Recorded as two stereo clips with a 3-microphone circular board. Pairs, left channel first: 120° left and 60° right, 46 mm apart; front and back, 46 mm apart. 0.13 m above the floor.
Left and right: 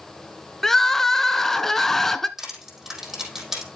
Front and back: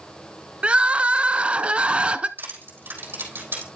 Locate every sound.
0.6 s crying: 170° right, 0.5 m
2.4 s crushing: 140° right, 4 m